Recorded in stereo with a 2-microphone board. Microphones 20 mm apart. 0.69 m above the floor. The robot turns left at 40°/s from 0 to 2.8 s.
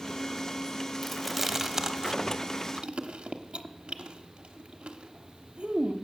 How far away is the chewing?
About 1.0 m.